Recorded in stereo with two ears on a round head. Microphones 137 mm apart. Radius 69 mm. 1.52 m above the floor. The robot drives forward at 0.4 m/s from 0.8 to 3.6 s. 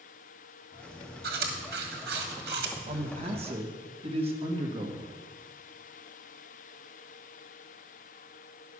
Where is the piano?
No piano in this recording.